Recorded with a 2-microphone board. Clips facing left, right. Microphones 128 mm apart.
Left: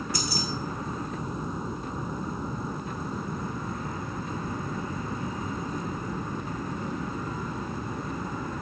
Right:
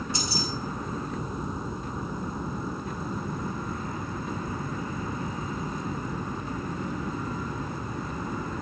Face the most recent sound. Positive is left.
turn(degrees=-25)  # may be behind; listen again after turning